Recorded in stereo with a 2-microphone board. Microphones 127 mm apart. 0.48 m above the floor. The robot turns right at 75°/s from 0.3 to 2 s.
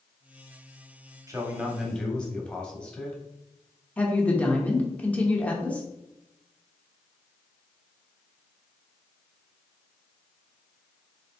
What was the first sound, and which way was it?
A man speaking, 40° right.